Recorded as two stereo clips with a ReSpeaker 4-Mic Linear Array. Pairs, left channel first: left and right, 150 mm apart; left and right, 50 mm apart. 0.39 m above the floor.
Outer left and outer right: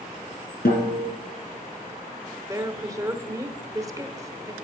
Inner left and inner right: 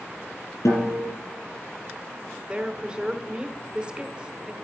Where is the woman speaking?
20° right (ahead or behind), 0.8 m.